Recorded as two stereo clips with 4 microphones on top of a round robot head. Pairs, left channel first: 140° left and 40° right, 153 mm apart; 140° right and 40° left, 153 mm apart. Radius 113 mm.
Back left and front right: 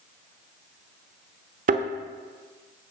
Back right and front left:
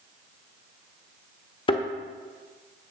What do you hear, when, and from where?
1.7 s a thud: 80° right, 1.0 m